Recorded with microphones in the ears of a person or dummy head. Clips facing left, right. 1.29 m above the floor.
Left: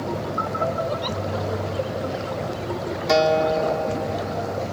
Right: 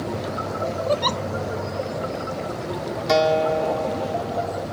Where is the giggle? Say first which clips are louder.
Right 4 dB; 65° right (ahead or behind).